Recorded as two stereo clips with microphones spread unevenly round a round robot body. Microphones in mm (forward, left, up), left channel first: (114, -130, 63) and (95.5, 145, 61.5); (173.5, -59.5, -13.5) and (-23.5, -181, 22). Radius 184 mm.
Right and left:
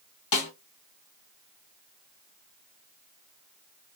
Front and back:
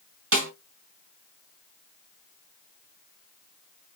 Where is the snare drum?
115° right, 2 m.